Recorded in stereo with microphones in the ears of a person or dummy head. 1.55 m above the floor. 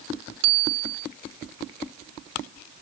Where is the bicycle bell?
80° right.